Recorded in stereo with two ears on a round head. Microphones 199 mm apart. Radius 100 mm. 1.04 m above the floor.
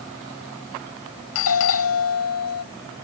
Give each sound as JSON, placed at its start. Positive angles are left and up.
{"t": 1.4, "sound": "a doorbell", "side_deg": 70}